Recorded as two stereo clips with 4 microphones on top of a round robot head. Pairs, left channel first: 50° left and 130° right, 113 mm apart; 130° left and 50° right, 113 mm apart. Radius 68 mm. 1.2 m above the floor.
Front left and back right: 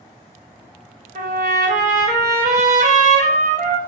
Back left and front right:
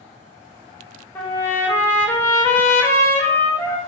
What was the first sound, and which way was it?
A trumpet, 155° right.